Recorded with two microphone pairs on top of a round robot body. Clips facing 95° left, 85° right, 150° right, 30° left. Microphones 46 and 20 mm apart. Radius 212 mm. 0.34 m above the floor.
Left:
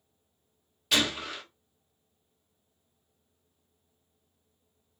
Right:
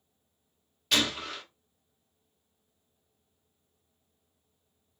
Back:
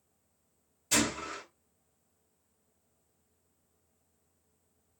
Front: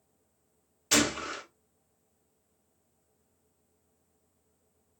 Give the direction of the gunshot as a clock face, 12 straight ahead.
12 o'clock.